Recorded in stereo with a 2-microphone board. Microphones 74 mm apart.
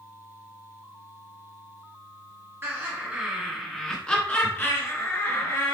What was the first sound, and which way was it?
Laughter, 30° right (ahead or behind).